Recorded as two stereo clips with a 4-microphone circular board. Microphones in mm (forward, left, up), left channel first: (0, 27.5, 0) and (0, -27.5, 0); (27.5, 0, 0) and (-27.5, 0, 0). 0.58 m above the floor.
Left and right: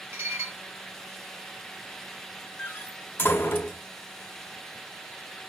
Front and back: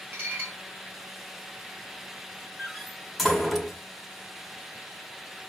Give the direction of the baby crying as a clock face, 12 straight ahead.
No baby crying in this recording.